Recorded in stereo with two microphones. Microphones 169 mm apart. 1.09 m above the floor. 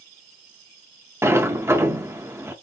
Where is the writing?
No writing in this recording.